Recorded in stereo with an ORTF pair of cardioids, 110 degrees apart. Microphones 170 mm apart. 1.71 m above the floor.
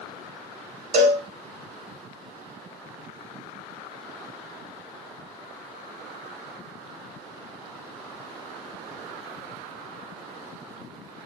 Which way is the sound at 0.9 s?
65° right.